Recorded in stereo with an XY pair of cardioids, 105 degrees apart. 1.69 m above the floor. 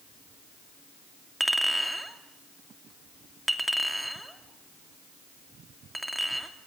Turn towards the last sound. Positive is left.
turn(degrees=-5)